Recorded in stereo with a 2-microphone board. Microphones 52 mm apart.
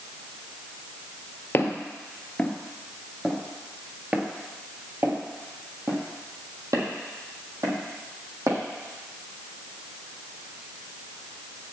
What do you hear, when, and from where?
1.5 s footsteps: 40° left (ahead or behind), 1.5 m; by 8.6 s 70° right (ahead or behind), 3.5 m